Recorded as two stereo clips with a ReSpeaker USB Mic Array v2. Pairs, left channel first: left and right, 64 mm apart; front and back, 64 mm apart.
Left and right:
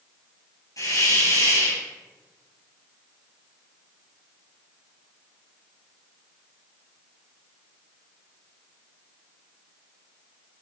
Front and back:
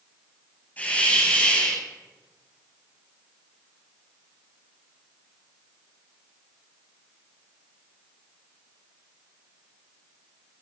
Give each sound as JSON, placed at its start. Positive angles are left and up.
{"t": 0.8, "sound": "a hiss", "azimuth_deg": 65, "distance_m": 7.0}